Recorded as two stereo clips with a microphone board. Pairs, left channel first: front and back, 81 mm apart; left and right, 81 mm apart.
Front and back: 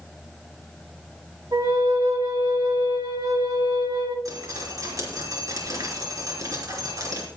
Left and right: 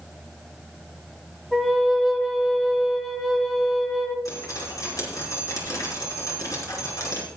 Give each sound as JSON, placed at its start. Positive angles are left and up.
{"t": 1.5, "sound": "a flute", "azimuth_deg": 180, "distance_m": 1.6}
{"t": 4.2, "sound": "dripping", "azimuth_deg": 135, "distance_m": 4.0}